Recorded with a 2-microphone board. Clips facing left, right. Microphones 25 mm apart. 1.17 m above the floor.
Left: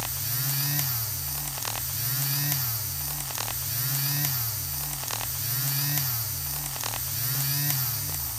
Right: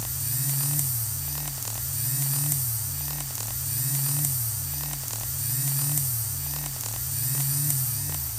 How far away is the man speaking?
No man speaking in this recording.